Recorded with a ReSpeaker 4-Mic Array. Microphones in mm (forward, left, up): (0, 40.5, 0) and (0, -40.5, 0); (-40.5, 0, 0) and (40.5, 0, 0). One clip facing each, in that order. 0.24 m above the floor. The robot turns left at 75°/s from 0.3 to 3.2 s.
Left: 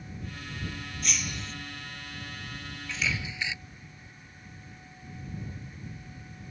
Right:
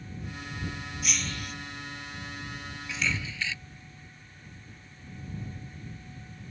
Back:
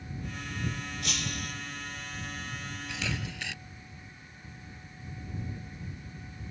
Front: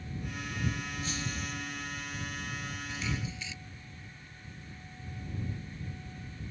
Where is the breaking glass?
175° right; by 1.5 s 145° left.